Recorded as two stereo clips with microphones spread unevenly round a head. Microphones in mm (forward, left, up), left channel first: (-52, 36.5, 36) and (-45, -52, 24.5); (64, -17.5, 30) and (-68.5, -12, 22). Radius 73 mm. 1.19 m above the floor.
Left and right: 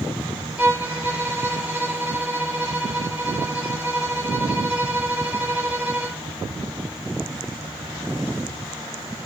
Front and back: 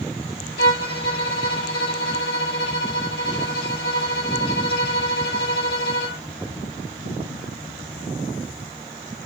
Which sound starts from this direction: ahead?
A violin, at 0.6 s.